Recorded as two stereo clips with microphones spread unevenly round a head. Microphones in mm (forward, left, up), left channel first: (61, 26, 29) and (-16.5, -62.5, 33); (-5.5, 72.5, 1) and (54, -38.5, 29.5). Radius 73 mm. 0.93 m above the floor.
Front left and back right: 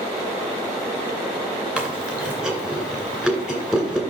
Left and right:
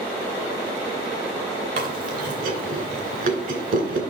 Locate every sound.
1.8 s chewing: 50° right, 2.5 m